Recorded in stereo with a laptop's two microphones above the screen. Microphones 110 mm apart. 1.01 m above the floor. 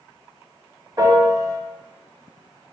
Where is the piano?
35° right (ahead or behind), 1.3 m.